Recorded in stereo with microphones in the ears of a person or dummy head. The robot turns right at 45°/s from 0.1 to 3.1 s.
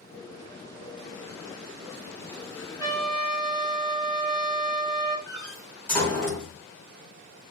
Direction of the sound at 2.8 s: 10° right (ahead or behind).